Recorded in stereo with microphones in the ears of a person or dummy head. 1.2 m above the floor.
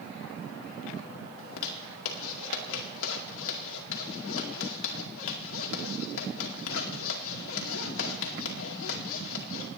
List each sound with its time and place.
1.4 s a zipper: 75° left (ahead or behind), 2 m